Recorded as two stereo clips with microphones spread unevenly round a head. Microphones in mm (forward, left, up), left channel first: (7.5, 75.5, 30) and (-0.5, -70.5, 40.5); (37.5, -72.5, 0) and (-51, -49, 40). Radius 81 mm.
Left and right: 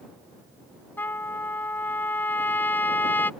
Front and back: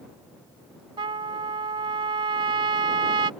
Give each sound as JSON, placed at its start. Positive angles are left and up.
{"t": 1.0, "sound": "a trumpet", "azimuth_deg": 165}